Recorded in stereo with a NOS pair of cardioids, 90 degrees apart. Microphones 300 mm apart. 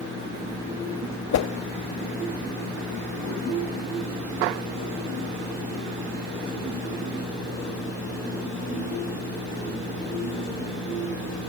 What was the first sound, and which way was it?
A whoosh, 60° left.